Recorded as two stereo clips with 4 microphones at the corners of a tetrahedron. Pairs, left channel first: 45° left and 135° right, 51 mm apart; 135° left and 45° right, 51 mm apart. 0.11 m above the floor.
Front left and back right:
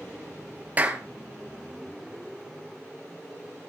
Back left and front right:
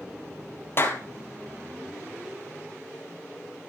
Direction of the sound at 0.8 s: 170° left.